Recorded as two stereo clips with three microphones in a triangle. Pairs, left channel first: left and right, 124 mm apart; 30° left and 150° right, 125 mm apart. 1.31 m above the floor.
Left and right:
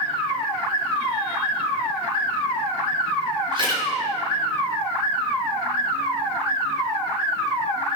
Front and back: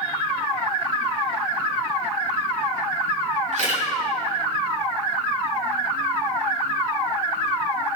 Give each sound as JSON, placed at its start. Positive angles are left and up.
{"t": 3.5, "sound": "a camera shutter", "azimuth_deg": -135, "distance_m": 6.5}